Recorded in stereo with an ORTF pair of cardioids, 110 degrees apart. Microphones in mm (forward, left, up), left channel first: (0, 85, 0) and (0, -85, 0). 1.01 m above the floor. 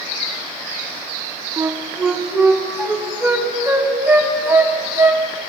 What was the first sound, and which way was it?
A flute, 10° right.